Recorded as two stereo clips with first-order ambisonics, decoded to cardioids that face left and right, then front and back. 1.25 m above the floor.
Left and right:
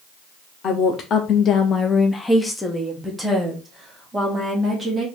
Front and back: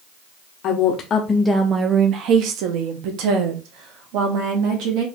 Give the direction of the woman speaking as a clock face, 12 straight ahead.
11 o'clock.